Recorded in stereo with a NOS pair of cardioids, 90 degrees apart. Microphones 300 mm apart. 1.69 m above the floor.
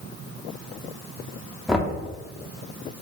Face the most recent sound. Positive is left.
turn(degrees=0)